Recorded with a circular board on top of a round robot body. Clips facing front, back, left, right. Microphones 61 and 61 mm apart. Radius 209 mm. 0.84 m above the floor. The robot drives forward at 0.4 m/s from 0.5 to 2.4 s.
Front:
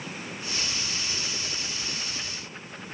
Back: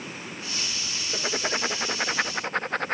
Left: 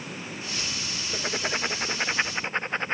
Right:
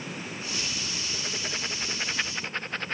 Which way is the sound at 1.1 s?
145° left.